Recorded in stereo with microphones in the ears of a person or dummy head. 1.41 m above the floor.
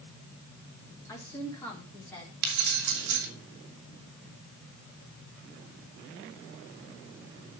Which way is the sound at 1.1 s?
20° left (ahead or behind).